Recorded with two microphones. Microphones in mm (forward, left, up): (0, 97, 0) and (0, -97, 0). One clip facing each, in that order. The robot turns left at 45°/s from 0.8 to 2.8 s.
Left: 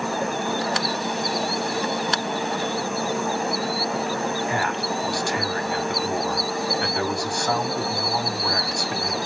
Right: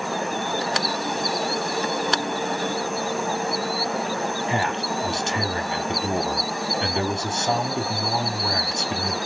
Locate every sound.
4.5 s a man speaking: 25° right (ahead or behind), 0.7 m